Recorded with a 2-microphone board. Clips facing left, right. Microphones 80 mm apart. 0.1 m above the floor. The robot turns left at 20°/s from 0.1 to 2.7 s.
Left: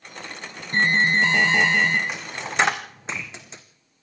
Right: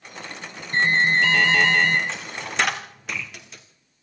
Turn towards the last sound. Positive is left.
turn(degrees=25)  # may be behind; listen again after turning